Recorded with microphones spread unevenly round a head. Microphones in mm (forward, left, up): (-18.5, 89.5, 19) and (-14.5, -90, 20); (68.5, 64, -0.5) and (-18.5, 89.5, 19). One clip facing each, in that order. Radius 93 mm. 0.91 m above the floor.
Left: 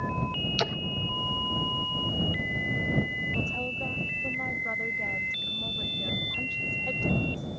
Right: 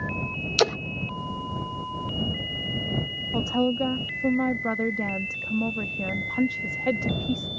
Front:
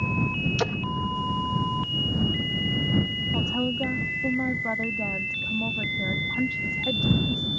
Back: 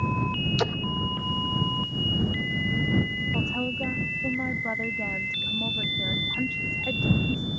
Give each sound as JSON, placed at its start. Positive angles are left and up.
{"t": 0.6, "sound": "a splash", "azimuth_deg": -105}
{"t": 3.3, "sound": "a woman speaking", "azimuth_deg": -100}